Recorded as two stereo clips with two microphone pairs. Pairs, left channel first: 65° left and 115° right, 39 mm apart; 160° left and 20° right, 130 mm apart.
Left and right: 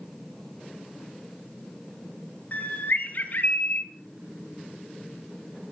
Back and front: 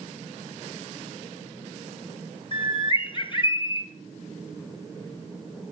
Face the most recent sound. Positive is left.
turn(degrees=110)